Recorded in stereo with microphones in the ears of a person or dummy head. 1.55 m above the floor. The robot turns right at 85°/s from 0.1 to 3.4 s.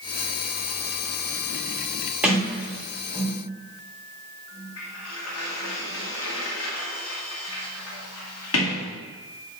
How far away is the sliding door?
About 2.5 m.